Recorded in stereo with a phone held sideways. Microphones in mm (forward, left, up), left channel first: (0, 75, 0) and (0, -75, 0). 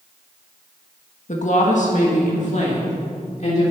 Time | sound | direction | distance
1.3 | a woman speaking | 55° left (ahead or behind) | 1.5 m